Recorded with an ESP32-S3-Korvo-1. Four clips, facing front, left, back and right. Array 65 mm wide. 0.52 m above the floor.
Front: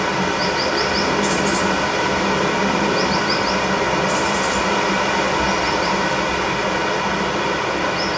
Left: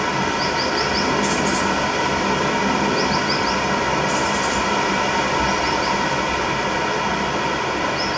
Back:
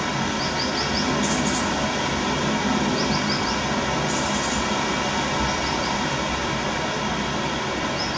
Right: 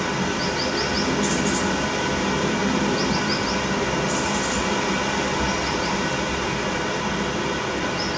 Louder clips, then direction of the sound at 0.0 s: Left 4 dB, front 5 dB; 30° left.